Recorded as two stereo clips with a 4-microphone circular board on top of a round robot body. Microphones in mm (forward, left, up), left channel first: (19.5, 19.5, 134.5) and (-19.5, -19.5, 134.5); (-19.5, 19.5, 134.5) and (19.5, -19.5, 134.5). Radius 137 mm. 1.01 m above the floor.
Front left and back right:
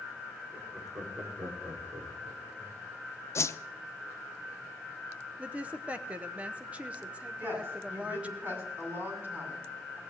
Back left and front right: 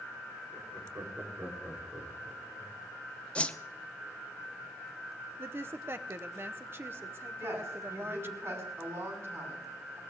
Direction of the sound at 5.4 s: 75° right.